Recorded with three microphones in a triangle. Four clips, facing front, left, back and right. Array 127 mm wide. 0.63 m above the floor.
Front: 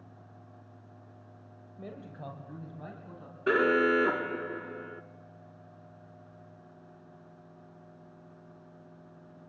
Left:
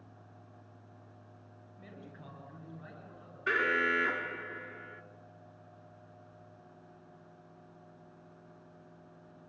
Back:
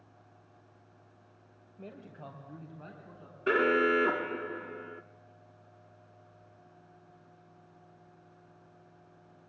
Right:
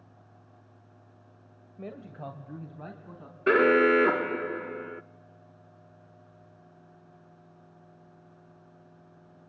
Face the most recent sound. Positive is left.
turn(degrees=-85)